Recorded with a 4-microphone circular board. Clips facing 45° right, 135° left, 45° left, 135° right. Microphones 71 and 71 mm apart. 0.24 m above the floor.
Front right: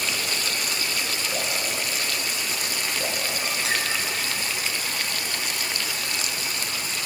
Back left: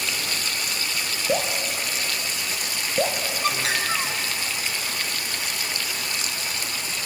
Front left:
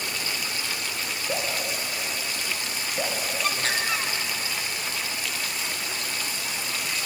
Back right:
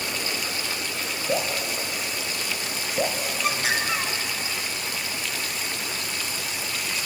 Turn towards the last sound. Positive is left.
turn(degrees=145)